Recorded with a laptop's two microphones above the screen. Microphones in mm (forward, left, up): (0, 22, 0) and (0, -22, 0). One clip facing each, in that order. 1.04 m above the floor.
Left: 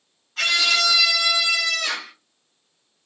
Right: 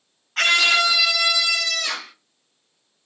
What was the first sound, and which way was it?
A scream, 65° right (ahead or behind).